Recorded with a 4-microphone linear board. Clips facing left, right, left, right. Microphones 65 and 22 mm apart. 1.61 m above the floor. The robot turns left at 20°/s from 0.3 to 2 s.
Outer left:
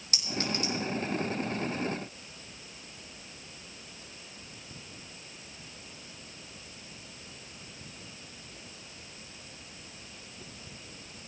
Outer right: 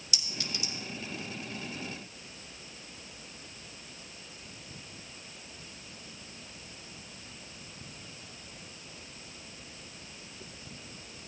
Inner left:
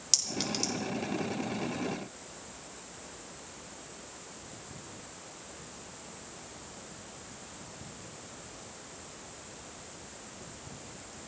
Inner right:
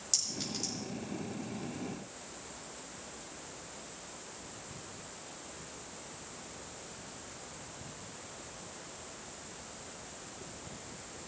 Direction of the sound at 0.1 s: 45° left (ahead or behind).